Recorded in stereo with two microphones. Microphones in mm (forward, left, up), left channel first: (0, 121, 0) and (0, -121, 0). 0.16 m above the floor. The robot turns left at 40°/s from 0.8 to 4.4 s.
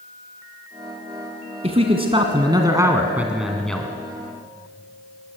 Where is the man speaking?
25° right (ahead or behind), 1.5 m; by 3.9 s 5° left (ahead or behind), 1.5 m.